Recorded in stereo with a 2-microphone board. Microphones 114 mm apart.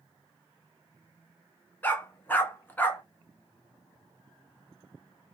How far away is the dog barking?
About 0.8 m.